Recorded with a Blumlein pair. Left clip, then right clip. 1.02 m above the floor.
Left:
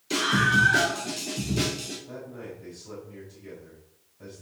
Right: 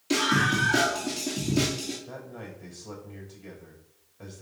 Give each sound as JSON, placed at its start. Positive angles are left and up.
{"t": 0.1, "sound": "a scream", "azimuth_deg": -35, "distance_m": 2.5}
{"t": 2.1, "sound": "a man speaking", "azimuth_deg": -60, "distance_m": 4.5}